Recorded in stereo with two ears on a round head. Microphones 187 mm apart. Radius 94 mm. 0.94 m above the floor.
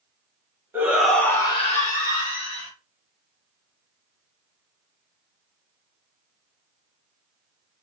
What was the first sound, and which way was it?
A shout, 10° right (ahead or behind).